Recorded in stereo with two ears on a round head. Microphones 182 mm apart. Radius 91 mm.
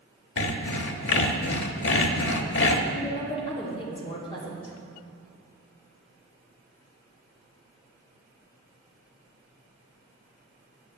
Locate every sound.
0.4 s sawing: 65° left (ahead or behind), 0.9 m
3.0 s a woman speaking: 25° left (ahead or behind), 2 m